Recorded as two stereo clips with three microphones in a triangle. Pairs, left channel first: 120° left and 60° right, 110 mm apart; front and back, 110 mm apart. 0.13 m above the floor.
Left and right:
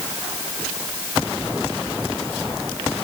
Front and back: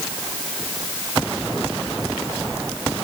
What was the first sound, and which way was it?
Only background noise.